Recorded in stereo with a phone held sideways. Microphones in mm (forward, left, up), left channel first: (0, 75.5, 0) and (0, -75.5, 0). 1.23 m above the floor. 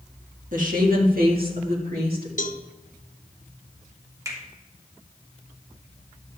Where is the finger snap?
20° right (ahead or behind), 3 m.